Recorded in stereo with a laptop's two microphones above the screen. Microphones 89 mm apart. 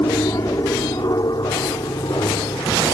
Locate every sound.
0.0 s an aircraft: 40° left (ahead or behind); by 2.9 s 55° left (ahead or behind)